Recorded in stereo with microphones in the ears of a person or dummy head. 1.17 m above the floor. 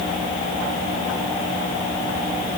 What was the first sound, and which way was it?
Only background noise.